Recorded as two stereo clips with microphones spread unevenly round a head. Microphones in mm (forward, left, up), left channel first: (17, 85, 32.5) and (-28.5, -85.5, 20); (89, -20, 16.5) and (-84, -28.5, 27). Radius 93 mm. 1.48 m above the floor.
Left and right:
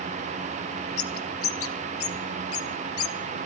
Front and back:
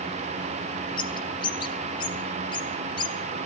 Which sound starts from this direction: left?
A bird, at 1.0 s.